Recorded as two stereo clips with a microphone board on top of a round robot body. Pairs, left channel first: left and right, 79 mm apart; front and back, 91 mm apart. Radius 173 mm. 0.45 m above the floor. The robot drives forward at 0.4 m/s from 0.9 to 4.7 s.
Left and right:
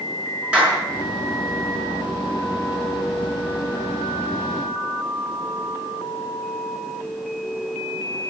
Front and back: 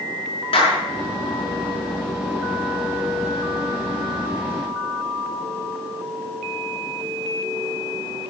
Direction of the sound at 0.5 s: 15° right.